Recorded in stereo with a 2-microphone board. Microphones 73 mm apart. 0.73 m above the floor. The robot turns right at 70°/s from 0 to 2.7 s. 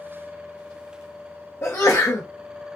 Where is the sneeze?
70° left, 0.7 m; by 2.3 s 115° left, 0.7 m.